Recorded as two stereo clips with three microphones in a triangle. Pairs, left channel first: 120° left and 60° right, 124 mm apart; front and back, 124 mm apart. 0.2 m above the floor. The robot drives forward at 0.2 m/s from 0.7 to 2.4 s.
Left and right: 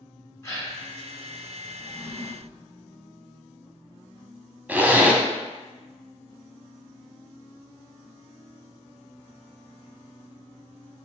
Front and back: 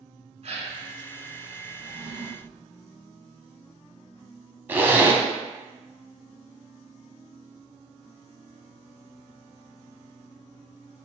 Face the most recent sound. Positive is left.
turn(degrees=-125)